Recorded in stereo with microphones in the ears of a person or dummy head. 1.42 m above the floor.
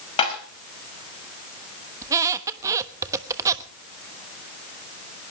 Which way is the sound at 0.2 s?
25° left (ahead or behind).